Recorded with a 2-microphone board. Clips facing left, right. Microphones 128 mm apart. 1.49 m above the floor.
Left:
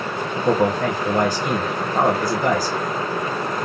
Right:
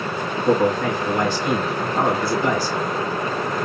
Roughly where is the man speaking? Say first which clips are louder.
Even; left.